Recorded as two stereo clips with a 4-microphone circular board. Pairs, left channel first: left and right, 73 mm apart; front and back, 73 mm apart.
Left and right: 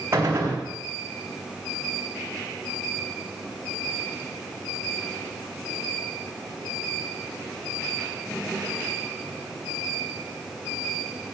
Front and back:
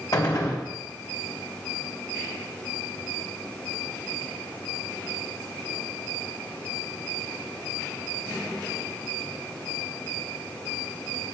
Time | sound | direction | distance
0.1 | a gunshot | 40° right | 4.5 m